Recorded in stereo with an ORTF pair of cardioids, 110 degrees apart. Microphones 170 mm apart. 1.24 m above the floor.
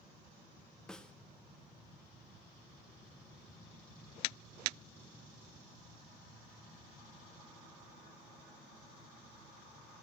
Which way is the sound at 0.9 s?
5° left.